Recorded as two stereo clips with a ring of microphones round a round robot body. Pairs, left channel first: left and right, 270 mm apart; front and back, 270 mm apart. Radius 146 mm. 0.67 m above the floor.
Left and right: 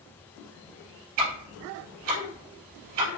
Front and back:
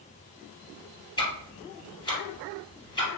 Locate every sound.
1.2 s ticking: 75° right, 2 m